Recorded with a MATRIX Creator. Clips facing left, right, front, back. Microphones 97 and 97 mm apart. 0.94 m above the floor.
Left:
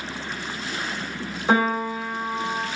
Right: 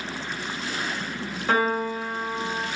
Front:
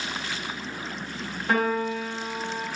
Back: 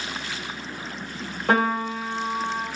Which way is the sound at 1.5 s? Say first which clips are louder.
Left 2 dB, back 2 dB; 160° left.